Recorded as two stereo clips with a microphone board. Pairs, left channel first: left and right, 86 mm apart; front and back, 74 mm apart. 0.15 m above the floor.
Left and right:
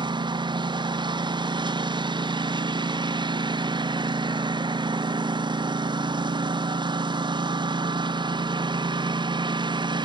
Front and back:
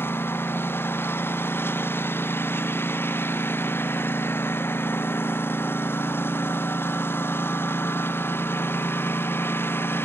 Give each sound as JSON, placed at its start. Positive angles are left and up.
{"t": 0.0, "sound": "a lawn mower", "azimuth_deg": -60}